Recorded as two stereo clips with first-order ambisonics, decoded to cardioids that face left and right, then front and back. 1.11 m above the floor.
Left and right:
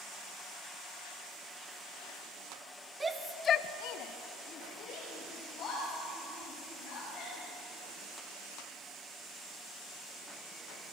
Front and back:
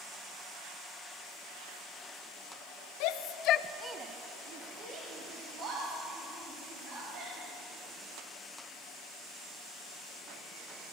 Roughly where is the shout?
Ahead.